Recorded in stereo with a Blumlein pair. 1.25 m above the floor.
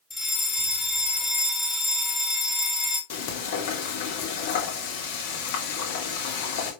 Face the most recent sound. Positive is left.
turn(degrees=55)